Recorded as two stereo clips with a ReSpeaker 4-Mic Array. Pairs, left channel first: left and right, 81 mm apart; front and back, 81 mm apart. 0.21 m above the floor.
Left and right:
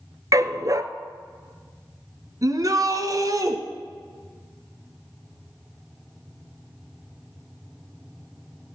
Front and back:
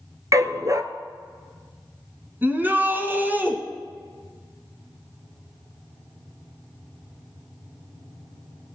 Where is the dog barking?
135° right, 0.8 m.